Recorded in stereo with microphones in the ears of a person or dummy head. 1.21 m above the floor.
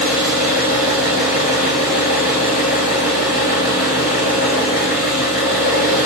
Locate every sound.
0.0 s an engine running: 55° left (ahead or behind), 2 m